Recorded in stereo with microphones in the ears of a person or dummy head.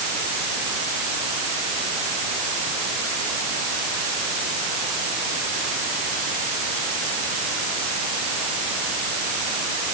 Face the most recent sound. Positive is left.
No sound to turn to.